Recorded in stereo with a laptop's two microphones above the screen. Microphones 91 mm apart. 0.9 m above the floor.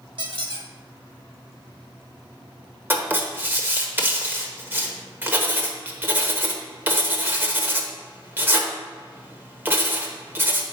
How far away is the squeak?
About 1.3 m.